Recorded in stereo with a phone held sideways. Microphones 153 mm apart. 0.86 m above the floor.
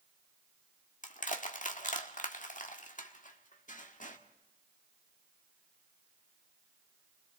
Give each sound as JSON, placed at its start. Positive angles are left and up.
{"t": 1.0, "sound": "crushing", "side_deg": 55, "distance_m": 1.5}